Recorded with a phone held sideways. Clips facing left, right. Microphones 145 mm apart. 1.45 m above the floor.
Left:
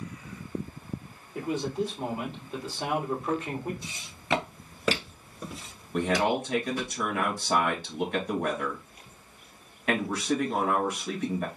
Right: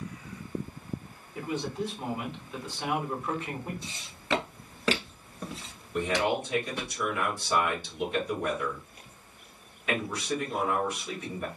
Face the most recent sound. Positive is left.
turn(degrees=60)  # may be behind; listen again after turning